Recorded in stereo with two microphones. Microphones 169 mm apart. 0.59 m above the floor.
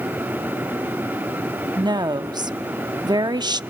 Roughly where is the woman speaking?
Right.